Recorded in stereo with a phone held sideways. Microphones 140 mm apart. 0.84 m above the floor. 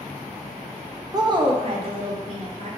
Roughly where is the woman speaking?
Right.